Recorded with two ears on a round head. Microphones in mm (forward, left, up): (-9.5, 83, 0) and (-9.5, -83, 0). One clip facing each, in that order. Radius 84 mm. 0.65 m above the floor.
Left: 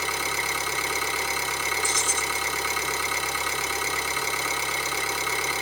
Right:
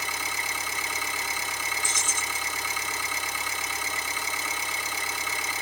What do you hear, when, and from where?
0.0 s an engine running: 50° left (ahead or behind), 0.9 m
1.8 s keys jangling: 40° right (ahead or behind), 0.8 m